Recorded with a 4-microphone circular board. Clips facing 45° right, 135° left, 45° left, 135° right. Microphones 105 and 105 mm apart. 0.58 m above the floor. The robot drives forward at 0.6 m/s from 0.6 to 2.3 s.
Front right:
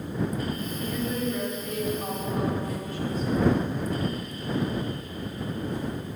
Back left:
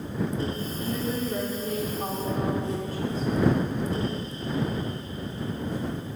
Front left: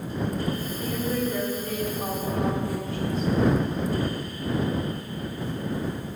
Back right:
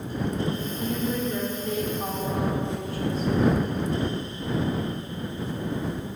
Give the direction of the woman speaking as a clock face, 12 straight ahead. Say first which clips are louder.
Even, even; 6 o'clock.